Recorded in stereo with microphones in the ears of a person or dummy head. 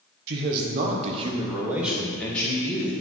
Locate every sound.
0.3 s a man speaking: 65° right (ahead or behind), 1.2 m; by 2.9 s 20° left (ahead or behind), 1.7 m